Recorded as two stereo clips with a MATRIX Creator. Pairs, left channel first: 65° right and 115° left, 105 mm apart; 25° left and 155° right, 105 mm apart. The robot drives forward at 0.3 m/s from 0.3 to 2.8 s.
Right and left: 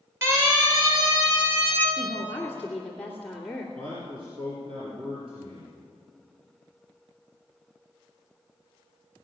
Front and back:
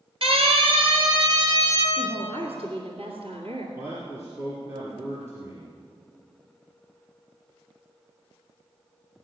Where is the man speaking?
140° left, 3.5 m.